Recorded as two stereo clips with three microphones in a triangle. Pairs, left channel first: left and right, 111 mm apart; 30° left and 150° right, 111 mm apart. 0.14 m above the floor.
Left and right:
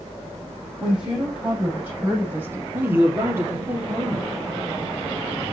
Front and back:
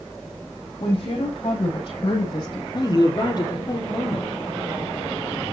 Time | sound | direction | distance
0.8 | a woman speaking | 5° right | 7 m
2.7 | a man speaking | 20° right | 3.5 m